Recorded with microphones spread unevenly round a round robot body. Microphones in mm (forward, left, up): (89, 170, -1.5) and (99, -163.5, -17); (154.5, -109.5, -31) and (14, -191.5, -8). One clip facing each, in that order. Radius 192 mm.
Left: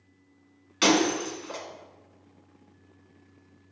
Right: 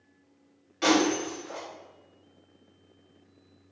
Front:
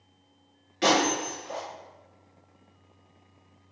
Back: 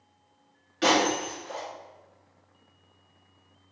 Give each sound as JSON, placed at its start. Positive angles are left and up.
{"t": 0.8, "sound": "breaking glass", "azimuth_deg": 115, "distance_m": 1.9}